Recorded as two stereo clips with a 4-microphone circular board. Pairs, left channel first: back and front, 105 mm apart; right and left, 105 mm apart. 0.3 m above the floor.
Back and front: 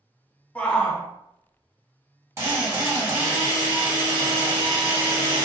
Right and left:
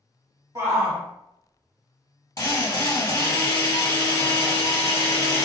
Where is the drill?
50° right, 1.8 m.